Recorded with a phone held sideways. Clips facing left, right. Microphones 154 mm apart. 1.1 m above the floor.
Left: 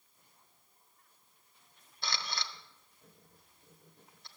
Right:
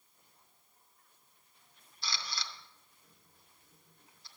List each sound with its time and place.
2.0 s a camera shutter: 60° left (ahead or behind), 0.8 m